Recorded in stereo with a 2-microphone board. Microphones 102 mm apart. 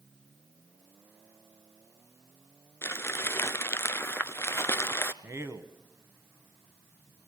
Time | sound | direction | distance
2.8 | crumpling | 25° left (ahead or behind) | 0.7 m
5.2 | a man speaking | 25° right (ahead or behind) | 1.2 m